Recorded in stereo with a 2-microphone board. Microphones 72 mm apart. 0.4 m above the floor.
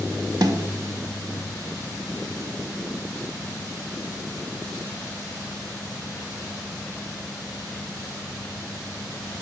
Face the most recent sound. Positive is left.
turn(degrees=-70)  # may be behind; listen again after turning